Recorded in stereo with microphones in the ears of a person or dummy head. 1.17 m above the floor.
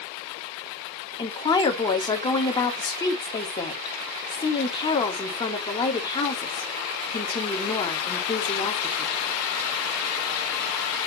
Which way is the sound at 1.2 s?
25° left (ahead or behind).